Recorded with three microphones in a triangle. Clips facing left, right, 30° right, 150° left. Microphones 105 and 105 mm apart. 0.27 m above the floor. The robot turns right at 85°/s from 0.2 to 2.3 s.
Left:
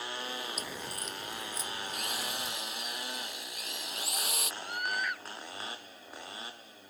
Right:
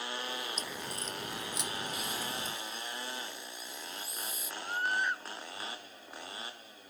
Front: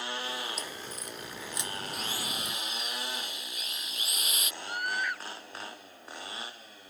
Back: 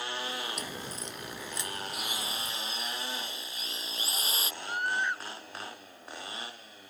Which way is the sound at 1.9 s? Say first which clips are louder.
Even, even; 60° left.